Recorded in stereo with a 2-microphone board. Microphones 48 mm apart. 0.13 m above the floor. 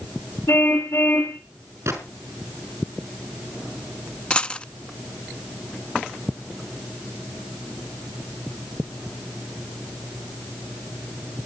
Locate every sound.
0.5 s a car horn: 75° left (ahead or behind), 7 m
1.9 s a gunshot: 85° right, 5 m
4.3 s a dropped coin: 25° left (ahead or behind), 0.6 m